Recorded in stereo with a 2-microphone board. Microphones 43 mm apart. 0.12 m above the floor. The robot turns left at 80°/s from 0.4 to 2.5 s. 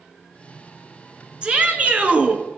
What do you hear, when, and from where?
1.4 s a shout: 45° right, 1.5 m; by 2.4 s 125° right, 1.5 m